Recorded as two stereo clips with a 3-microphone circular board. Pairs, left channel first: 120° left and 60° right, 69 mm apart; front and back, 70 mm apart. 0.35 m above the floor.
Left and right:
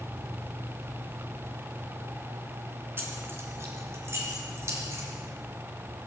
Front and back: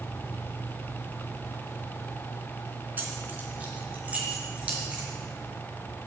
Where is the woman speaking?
I don't hear a woman speaking.